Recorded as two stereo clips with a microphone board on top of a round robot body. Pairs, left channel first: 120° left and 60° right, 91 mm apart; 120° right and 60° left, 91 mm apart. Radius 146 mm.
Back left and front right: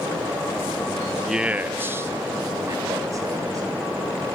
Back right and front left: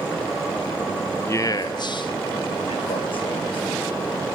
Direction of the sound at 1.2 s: 145° right.